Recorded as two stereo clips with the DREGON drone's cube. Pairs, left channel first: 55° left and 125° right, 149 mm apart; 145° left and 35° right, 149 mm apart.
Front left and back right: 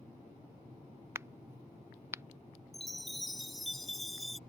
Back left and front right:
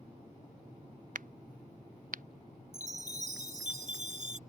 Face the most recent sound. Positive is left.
turn(degrees=-35)